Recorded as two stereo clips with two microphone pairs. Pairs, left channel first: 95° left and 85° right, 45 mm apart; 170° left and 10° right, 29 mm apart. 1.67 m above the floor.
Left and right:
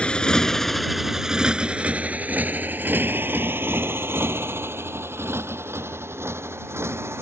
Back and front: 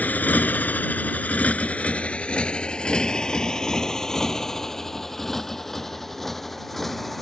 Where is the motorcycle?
160° left; by 7.2 s 105° right.